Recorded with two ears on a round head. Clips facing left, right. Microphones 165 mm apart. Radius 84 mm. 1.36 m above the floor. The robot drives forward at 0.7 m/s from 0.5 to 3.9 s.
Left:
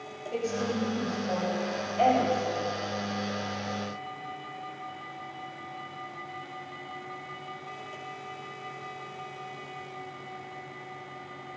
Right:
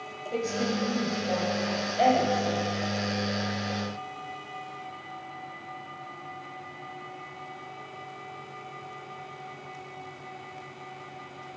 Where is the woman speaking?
10° right (ahead or behind), 7 m.